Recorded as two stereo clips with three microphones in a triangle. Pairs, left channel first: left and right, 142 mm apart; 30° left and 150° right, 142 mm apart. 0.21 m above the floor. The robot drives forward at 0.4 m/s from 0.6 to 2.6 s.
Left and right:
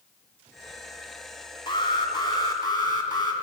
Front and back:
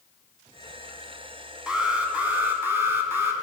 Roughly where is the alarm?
Behind left.